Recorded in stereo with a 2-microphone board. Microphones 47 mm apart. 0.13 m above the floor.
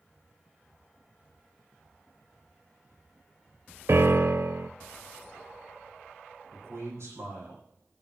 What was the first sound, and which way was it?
A piano, 60° right (ahead or behind).